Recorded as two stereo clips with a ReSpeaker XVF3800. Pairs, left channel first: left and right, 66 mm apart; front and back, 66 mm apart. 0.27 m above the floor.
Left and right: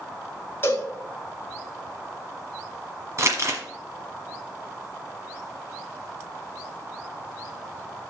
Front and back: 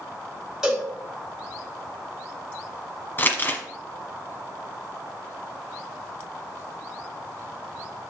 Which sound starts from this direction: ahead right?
Crumpling, at 3.2 s.